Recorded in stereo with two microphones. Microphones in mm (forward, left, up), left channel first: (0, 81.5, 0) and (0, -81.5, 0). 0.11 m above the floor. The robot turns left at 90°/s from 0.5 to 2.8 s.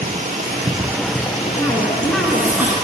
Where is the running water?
130° right, 1.4 m; by 2.9 s 25° left, 1.4 m.